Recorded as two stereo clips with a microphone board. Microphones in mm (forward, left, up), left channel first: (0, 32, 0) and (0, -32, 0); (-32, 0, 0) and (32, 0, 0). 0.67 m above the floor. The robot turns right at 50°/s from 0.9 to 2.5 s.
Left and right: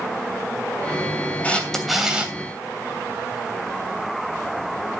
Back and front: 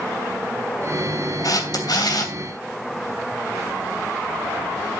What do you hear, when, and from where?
1.4 s a camera shutter: 160° left, 3 m; by 2.4 s 155° right, 3 m